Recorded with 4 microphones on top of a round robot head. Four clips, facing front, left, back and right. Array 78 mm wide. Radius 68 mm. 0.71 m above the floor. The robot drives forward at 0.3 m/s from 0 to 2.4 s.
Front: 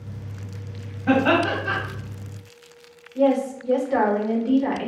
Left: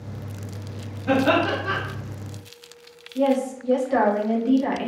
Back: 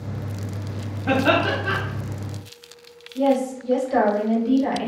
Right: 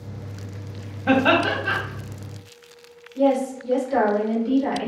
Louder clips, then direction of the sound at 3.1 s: Right 1 dB, even; 60° left.